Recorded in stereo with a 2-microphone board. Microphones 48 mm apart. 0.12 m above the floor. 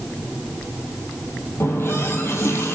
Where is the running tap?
60° left (ahead or behind), 2.5 m.